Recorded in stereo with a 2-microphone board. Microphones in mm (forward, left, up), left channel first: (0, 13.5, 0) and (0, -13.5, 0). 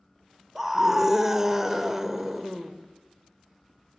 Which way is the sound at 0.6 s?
15° right (ahead or behind).